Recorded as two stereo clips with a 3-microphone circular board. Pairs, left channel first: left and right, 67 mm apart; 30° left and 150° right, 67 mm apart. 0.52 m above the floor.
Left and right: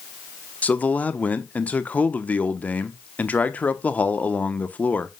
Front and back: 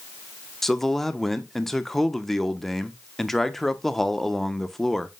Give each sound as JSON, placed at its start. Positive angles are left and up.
{"t": 0.6, "sound": "a man speaking", "azimuth_deg": 110, "distance_m": 0.7}